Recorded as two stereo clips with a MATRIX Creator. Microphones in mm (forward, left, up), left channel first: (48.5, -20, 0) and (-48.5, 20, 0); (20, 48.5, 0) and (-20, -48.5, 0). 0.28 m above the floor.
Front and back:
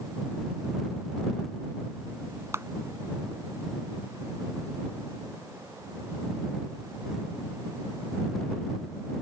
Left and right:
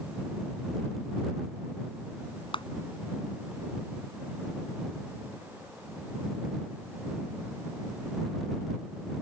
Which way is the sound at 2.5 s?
95° left.